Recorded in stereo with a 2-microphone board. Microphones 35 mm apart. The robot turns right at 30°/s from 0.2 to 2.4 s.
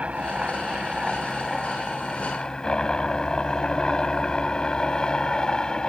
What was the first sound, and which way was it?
A helicopter, 40° right.